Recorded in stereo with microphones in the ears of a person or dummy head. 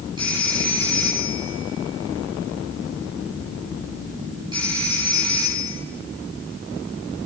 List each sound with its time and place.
0.2 s a phone ringing: 25° right (ahead or behind), 8 m